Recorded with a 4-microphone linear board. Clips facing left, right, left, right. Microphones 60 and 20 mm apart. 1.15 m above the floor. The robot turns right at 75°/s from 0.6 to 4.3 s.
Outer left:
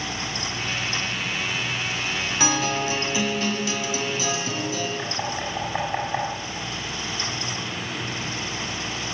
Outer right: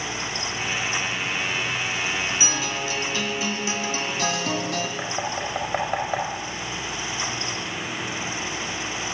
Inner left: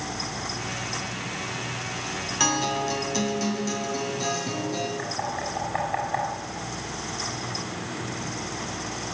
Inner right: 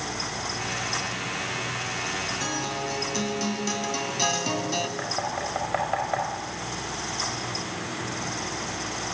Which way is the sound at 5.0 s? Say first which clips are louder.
Outer right 1 dB, inner right 1 dB; 60° right (ahead or behind).